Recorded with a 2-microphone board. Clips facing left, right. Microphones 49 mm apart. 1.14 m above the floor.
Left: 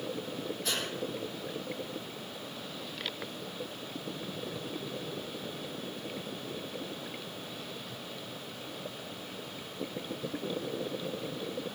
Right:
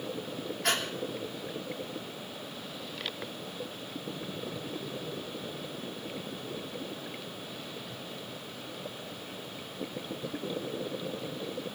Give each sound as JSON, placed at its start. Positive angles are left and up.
{"t": 0.6, "sound": "breathing", "side_deg": -65, "distance_m": 3.0}